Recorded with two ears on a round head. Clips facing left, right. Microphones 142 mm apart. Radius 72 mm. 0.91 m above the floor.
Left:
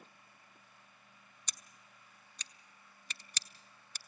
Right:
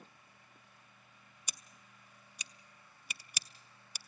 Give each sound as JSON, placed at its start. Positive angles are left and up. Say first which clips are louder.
{"t": 1.5, "sound": "scissors", "louder": "right 1 dB", "side_deg": -10, "distance_m": 0.6}